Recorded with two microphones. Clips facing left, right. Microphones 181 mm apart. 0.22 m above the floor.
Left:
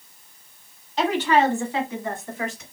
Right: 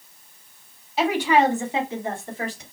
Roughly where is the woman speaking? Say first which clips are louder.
Right 1 dB; centre.